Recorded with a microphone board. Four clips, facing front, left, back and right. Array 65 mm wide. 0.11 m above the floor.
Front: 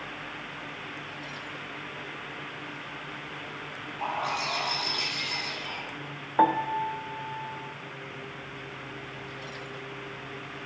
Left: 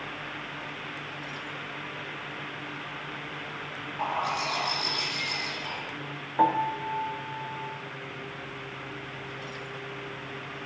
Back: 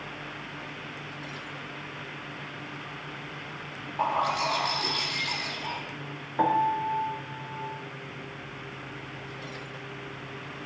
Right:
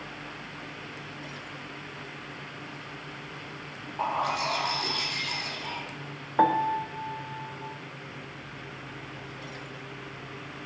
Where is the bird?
155° right, 3.5 m.